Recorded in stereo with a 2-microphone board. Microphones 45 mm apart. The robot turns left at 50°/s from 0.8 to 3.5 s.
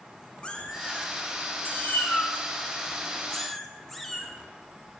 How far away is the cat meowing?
About 0.6 m.